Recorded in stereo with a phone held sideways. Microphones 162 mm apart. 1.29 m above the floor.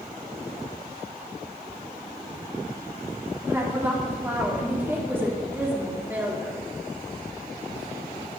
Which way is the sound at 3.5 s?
15° right (ahead or behind).